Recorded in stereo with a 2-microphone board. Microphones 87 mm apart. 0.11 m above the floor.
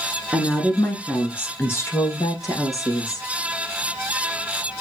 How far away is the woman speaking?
About 1.1 m.